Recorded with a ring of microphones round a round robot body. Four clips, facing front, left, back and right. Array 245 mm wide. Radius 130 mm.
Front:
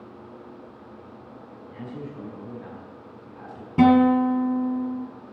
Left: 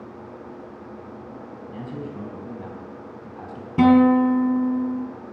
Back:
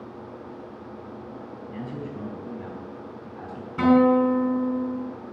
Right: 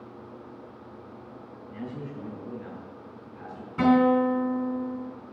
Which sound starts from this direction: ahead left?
A guitar, at 3.8 s.